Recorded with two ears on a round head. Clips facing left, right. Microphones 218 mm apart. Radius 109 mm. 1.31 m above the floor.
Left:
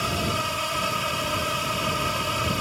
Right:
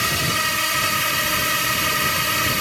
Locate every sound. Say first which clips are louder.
0.0 s a drone: even; 30° right (ahead or behind)